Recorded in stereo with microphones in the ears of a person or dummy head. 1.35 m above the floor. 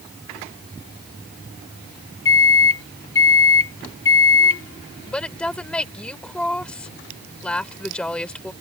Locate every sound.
2.2 s a microwave: 25° left (ahead or behind)
5.1 s a woman speaking: 5° left (ahead or behind)